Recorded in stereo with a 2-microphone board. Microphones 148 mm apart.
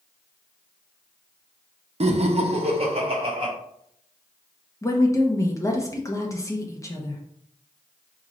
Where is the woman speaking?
20° left (ahead or behind), 0.6 m.